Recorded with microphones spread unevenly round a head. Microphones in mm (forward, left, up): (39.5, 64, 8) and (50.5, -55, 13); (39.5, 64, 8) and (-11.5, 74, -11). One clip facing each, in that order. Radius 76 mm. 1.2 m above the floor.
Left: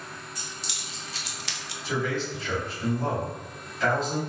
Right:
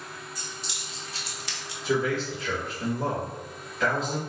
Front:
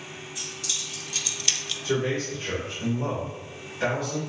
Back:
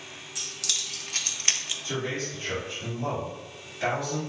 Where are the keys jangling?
145° left, 1.0 m; by 1.7 s 80° left, 0.6 m.